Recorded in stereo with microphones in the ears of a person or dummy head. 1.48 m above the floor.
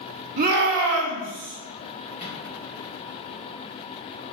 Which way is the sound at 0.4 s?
40° right (ahead or behind).